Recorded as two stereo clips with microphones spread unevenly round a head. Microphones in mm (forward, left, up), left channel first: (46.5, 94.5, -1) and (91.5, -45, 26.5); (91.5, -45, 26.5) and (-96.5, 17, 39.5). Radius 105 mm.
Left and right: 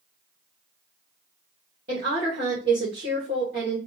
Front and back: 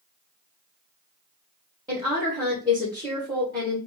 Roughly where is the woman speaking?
Behind right.